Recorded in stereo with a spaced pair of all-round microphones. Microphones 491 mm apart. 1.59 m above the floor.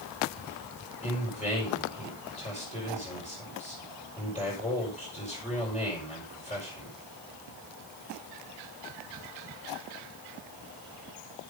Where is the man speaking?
15° left (ahead or behind), 6 m.